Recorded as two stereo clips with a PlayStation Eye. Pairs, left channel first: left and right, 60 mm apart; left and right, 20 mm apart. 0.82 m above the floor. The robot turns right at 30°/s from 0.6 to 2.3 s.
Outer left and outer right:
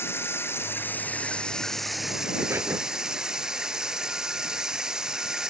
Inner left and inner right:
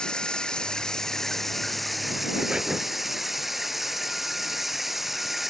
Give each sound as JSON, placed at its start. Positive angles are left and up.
{"t": 0.0, "sound": "running water", "azimuth_deg": 140}
{"t": 2.4, "sound": "breathing", "side_deg": -40}